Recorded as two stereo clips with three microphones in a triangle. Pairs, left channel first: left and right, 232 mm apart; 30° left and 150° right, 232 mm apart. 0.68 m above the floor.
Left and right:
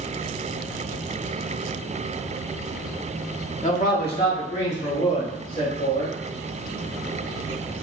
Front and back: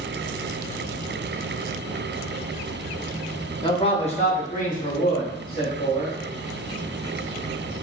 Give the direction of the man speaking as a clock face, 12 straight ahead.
9 o'clock.